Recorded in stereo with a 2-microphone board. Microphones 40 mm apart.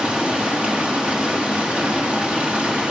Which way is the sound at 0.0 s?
30° right (ahead or behind).